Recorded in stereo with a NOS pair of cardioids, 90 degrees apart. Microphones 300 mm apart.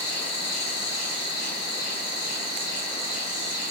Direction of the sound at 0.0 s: 60° left.